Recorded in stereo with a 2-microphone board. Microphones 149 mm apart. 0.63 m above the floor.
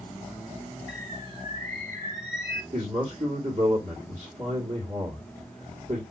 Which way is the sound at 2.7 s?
50° right (ahead or behind).